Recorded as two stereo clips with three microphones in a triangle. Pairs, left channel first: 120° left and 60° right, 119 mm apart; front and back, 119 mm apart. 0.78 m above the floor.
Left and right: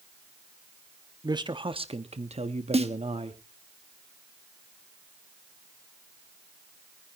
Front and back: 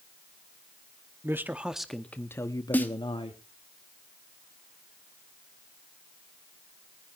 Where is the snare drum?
75° right, 1.2 m.